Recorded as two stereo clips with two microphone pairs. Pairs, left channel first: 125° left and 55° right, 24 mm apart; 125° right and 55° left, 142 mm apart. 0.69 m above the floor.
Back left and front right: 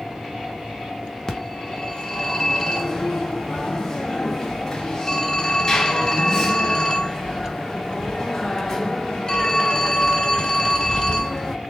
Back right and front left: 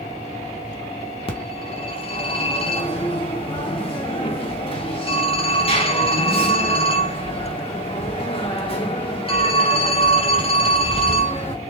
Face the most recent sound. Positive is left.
turn(degrees=-175)